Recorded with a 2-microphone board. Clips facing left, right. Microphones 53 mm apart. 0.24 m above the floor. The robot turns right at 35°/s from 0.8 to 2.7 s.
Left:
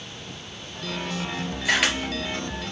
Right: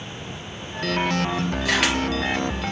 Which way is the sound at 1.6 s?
10° left (ahead or behind).